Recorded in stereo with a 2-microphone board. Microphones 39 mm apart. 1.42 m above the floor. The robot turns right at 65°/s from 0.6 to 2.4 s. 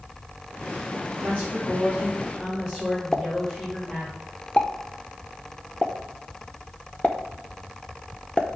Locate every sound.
1.1 s a woman speaking: 85° right, 3.5 m; by 4.1 s straight ahead, 3.5 m
3.1 s a pop: 30° left (ahead or behind), 0.6 m